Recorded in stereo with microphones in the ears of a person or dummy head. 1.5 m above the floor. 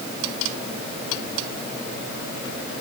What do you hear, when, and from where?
Only background noise.